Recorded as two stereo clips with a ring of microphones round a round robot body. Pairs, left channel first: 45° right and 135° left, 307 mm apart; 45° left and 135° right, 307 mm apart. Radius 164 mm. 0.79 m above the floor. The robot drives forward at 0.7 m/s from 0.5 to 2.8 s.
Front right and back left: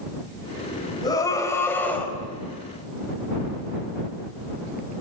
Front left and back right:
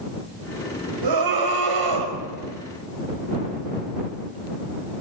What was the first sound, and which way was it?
A scream, 120° right.